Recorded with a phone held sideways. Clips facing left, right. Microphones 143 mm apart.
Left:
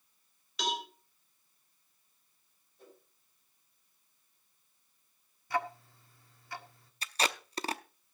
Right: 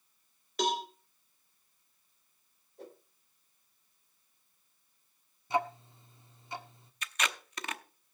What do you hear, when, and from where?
0.6 s a cowbell: 45° right (ahead or behind), 3 m
2.8 s a whoosh: 75° right (ahead or behind), 3.5 m
5.5 s ticking: 20° right (ahead or behind), 1.1 m
7.0 s tape being pulled: 35° left (ahead or behind), 0.7 m